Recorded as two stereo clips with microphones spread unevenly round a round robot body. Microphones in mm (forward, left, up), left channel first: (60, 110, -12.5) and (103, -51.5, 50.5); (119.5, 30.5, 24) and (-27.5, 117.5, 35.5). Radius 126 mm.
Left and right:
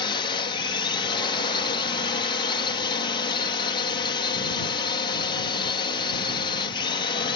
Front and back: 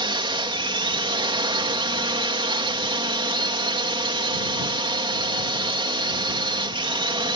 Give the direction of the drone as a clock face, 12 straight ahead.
9 o'clock.